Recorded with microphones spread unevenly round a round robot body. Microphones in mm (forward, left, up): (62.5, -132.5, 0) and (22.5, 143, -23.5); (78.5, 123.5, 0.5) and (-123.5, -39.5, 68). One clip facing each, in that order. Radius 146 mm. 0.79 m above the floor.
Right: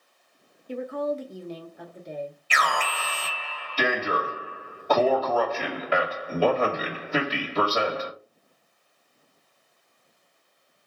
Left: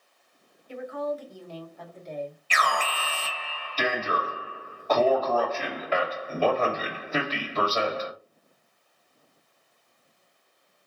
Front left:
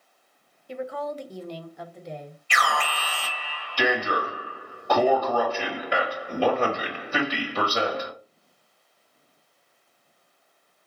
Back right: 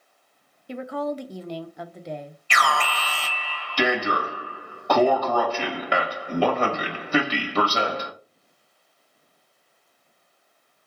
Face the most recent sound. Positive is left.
turn(degrees=-160)